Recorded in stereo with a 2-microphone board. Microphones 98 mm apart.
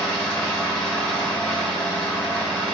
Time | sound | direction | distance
0.0 | an engine running | 10° left (ahead or behind) | 2.5 m